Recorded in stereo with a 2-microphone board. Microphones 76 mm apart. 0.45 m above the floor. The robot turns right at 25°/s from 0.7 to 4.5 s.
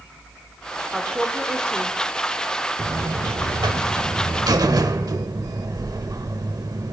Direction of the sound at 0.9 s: 15° right (ahead or behind).